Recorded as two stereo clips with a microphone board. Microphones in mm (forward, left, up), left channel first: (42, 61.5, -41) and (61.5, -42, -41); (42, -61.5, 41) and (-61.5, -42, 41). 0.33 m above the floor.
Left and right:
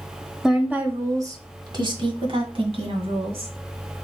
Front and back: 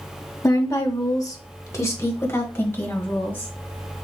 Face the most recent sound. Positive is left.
turn(degrees=-80)